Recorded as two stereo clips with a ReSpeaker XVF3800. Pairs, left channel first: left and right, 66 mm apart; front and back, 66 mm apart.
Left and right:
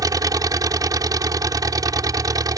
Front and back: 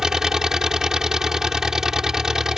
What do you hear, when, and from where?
0.0 s an engine running: 100° right